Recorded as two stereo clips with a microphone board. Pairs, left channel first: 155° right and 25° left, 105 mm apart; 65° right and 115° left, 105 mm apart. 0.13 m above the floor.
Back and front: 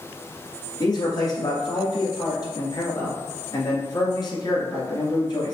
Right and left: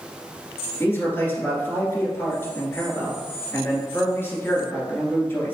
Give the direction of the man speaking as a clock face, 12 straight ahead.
4 o'clock.